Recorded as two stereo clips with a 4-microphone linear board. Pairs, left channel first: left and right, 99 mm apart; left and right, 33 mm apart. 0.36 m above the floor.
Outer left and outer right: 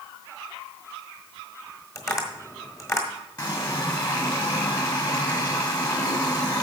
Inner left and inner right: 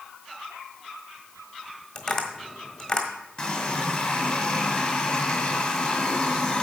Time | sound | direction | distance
1.9 | tapping | 30° left (ahead or behind) | 1.4 m
3.4 | a running tap | 35° left (ahead or behind) | 1.6 m